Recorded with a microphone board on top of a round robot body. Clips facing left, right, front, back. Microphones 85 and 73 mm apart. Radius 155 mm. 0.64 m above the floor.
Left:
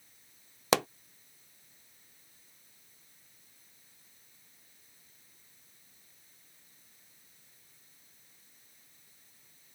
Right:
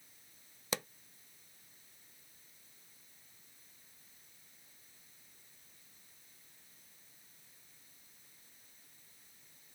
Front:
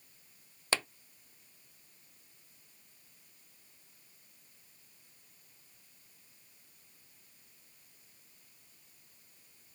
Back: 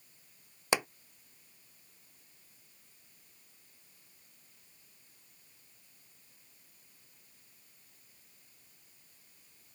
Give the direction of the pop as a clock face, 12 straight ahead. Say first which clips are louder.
Left 13 dB, back 4 dB; 9 o'clock.